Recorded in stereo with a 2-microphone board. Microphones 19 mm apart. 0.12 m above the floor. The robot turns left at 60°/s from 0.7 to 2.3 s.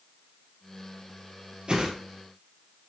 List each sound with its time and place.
1.7 s a whoosh: 50° right (ahead or behind), 3 m; by 1.9 s 40° right (ahead or behind), 3 m